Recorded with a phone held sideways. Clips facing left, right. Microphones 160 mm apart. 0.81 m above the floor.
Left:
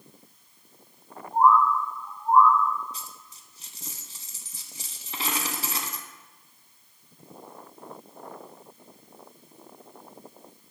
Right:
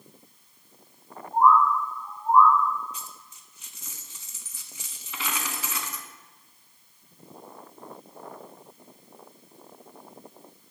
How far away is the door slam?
No door slam in this recording.